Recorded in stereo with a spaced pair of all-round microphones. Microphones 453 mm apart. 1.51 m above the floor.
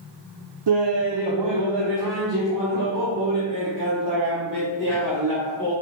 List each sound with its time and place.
0.7 s laughter: 65° right (ahead or behind), 0.6 m; by 5.7 s 40° right (ahead or behind), 3 m